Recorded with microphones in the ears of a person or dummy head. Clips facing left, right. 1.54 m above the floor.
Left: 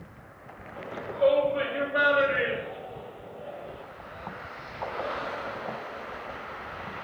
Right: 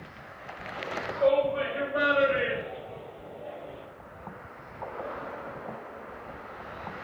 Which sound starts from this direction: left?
A shout, at 0.8 s.